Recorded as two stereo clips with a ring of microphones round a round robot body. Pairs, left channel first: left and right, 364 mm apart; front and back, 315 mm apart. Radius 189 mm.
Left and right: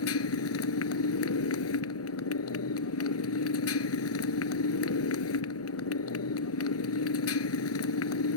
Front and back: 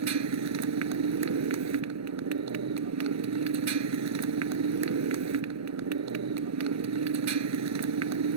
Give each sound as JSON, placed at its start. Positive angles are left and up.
{"t": 0.0, "sound": "a motorcycle", "azimuth_deg": 145}